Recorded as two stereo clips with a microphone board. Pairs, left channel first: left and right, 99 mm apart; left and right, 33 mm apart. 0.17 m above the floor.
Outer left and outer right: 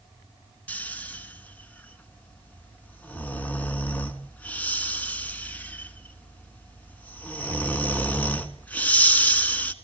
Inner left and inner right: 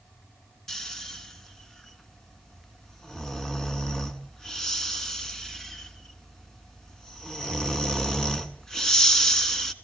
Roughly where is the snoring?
Centre.